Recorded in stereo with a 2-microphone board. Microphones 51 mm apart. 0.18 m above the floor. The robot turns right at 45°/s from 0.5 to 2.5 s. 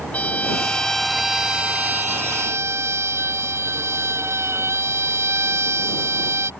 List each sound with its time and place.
0.1 s a violin: 155° left; by 6.5 s 115° right